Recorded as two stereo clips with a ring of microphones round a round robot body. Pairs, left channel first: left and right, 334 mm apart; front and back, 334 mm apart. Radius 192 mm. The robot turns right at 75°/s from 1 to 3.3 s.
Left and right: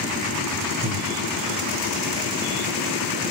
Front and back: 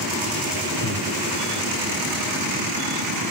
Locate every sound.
0.8 s breathing: 50° right, 1.2 m; by 1.1 s 45° right, 1.2 m